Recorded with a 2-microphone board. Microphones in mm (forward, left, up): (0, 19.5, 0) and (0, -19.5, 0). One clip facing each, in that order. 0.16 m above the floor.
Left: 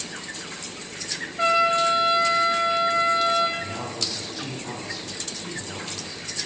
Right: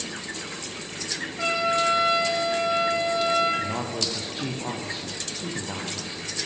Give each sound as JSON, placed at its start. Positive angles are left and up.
{"t": 1.4, "sound": "a trumpet", "side_deg": 25, "distance_m": 9.0}
{"t": 3.6, "sound": "a man speaking", "side_deg": -45, "distance_m": 6.0}